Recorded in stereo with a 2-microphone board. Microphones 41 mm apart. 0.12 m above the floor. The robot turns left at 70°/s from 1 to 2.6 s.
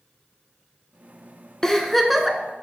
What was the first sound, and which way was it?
A giggle, 30° left.